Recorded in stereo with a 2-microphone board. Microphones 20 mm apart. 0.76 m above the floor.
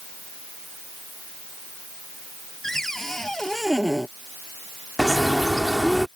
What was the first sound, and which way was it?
A cupboard door, 15° left (ahead or behind).